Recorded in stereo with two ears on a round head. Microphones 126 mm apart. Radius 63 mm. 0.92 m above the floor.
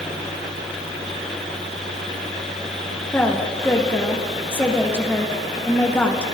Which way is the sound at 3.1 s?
15° left (ahead or behind).